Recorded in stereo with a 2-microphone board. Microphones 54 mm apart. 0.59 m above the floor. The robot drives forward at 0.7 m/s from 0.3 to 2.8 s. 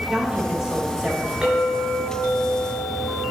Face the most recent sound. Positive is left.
turn(degrees=-20)  # may be behind; listen again after turning